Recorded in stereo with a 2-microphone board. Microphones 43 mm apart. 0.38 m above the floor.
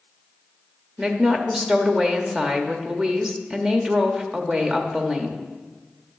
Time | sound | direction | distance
1.0 | a woman speaking | 20° right (ahead or behind) | 0.8 m